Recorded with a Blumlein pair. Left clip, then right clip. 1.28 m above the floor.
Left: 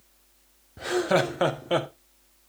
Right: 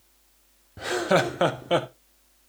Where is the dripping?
No dripping in this recording.